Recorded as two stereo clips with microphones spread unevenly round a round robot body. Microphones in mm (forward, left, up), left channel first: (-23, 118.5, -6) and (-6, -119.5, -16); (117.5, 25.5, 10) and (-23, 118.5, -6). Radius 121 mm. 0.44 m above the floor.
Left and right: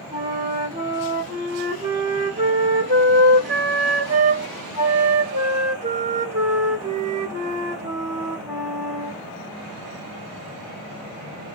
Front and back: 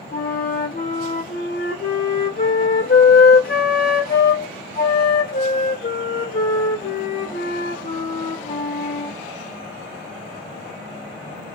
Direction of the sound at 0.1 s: 40° right.